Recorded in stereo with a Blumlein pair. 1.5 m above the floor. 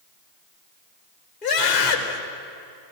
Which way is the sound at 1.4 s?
30° left.